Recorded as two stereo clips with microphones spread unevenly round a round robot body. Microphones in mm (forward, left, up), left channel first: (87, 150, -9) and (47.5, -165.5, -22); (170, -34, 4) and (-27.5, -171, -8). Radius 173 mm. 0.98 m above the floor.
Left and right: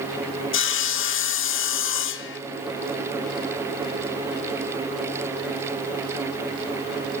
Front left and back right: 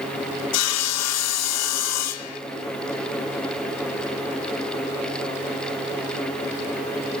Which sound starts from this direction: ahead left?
Sawing, at 0.5 s.